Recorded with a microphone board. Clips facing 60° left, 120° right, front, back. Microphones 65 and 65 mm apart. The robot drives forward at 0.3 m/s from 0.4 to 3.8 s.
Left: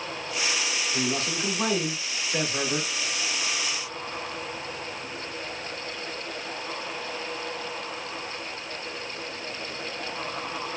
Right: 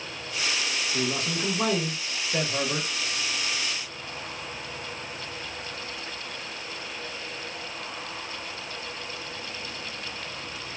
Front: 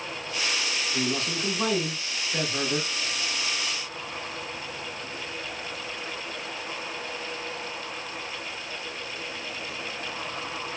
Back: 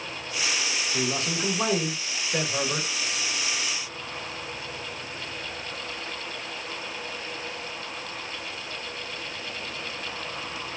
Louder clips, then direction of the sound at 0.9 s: Even, back 1 dB; 175° left.